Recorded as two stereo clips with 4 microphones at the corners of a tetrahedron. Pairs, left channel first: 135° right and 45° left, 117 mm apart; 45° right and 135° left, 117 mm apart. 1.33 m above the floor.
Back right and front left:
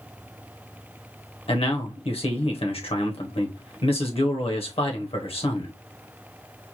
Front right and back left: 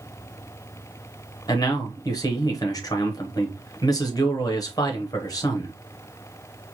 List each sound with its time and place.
1.5 s a man speaking: 100° right, 1.0 m